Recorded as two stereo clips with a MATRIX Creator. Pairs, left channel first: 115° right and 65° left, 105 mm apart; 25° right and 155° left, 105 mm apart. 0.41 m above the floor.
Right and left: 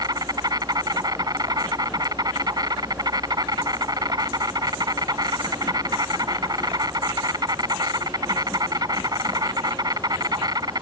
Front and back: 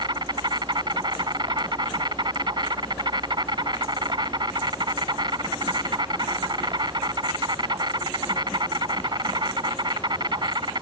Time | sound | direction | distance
0.0 | an insect | 115° left | ?